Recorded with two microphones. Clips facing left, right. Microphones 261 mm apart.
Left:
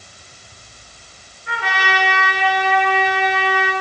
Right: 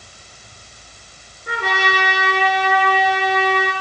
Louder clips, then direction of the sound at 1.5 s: Right 3 dB; 45° right (ahead or behind).